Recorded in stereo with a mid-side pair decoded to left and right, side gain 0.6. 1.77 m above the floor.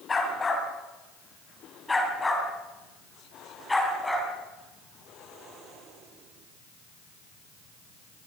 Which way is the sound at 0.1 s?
25° left.